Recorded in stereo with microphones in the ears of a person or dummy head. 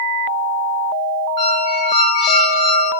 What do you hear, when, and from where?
1.4 s a squeak: 30° left (ahead or behind), 1.5 m